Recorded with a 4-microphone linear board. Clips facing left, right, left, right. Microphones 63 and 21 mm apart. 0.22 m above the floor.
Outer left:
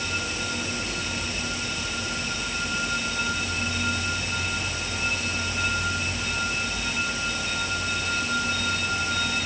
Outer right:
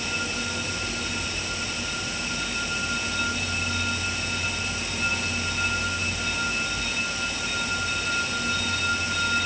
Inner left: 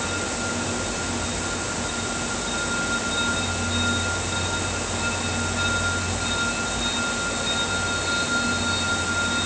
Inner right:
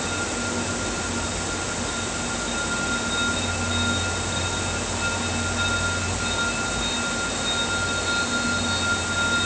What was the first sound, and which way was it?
Only background noise.